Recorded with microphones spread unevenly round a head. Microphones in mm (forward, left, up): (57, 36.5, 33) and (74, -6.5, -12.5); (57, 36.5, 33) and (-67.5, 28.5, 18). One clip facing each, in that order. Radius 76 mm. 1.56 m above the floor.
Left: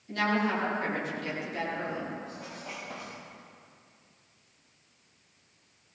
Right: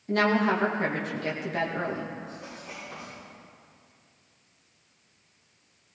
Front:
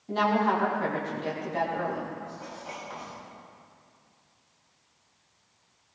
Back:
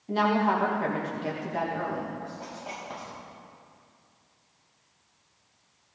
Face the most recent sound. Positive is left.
turn(degrees=130)